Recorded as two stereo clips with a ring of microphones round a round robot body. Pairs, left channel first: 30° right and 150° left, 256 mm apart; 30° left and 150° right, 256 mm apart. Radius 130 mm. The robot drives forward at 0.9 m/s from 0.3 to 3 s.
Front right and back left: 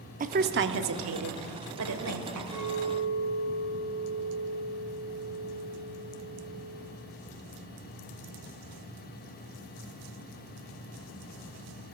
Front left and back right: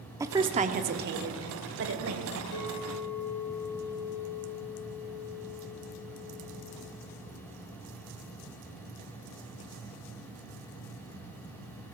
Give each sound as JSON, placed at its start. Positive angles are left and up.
{"t": 0.2, "sound": "a woman speaking", "azimuth_deg": 145, "distance_m": 0.8}
{"t": 2.5, "sound": "a clink", "azimuth_deg": 80, "distance_m": 5.0}